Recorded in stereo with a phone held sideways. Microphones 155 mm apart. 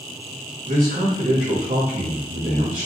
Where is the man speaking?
60° right (ahead or behind), 1.9 m.